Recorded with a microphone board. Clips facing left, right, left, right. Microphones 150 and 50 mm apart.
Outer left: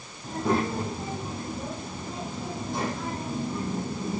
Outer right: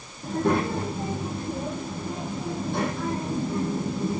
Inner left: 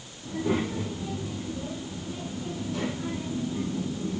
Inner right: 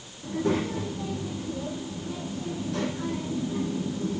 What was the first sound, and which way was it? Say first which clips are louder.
A child speaking: outer right 2 dB, inner right 1 dB; 60° right (ahead or behind).